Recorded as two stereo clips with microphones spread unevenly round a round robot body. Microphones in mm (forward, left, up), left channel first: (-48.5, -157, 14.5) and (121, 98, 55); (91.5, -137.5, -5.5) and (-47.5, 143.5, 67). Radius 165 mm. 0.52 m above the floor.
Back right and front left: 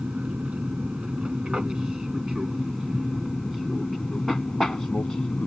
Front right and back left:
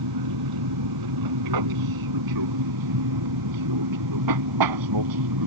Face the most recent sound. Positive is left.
turn(degrees=150)